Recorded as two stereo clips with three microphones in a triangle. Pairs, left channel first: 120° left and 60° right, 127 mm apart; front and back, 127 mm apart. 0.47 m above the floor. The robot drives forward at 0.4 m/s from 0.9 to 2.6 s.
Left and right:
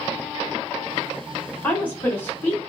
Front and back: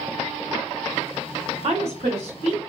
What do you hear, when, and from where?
1.6 s a woman speaking: 165° right, 1.5 m